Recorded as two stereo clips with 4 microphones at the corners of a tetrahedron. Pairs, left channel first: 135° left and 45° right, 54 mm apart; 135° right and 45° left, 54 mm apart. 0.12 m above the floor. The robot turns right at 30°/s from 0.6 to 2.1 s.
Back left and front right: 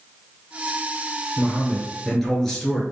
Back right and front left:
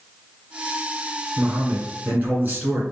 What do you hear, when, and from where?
1.4 s a man speaking: 30° left, 1.4 m; by 2.8 s 55° left, 1.4 m